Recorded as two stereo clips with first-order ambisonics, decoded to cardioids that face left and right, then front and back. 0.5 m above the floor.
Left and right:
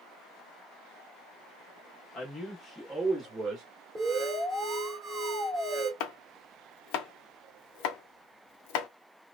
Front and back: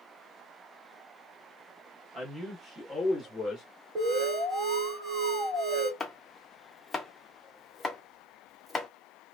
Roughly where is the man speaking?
Behind left.